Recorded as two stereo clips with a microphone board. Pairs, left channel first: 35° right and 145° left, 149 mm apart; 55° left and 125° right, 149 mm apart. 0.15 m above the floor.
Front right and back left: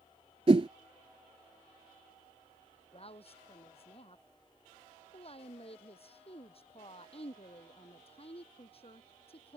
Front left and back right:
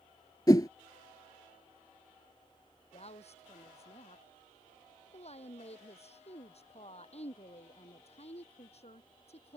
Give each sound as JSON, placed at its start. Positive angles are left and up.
{"t": 0.5, "sound": "a whoosh", "azimuth_deg": 110}
{"t": 2.9, "sound": "a woman speaking", "azimuth_deg": 15}